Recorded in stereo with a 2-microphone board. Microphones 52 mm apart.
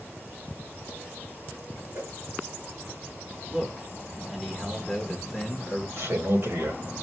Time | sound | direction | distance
1.9 | a whoosh | 70° right (ahead or behind) | 3 m
3.5 | a man speaking | 10° right (ahead or behind) | 1.1 m
6.0 | a man speaking | 60° right (ahead or behind) | 1.9 m